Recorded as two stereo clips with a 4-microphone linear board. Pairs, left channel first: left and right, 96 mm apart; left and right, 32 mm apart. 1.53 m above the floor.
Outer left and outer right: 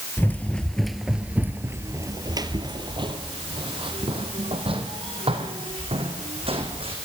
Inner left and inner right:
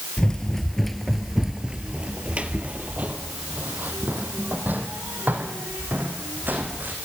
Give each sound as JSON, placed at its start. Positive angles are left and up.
{"t": 0.2, "sound": "running footsteps", "side_deg": 20, "distance_m": 1.8}